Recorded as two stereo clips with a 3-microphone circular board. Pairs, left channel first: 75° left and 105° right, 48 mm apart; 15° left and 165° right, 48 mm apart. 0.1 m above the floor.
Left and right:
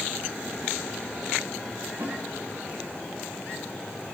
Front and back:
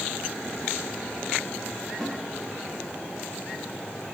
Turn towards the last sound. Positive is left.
turn(degrees=-75)